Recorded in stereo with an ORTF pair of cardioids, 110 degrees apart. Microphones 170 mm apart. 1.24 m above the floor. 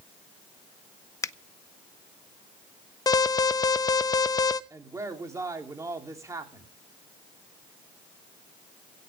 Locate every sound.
1.2 s a finger snap: 20° left, 0.6 m
3.1 s an alarm: 20° left, 0.9 m
4.7 s a woman speaking: 20° right, 3.5 m